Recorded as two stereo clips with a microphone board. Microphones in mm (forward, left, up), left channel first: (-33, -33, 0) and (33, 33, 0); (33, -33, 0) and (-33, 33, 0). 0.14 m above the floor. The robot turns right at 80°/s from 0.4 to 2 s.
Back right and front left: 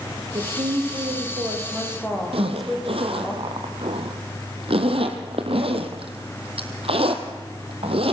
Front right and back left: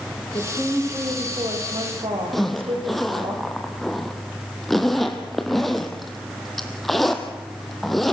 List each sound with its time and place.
0.3 s a woman speaking: 5° left, 7 m; by 3.3 s 135° left, 7 m
2.3 s a zipper: 45° left, 2 m